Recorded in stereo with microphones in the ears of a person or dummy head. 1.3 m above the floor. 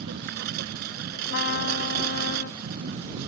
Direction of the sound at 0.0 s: 50° right (ahead or behind).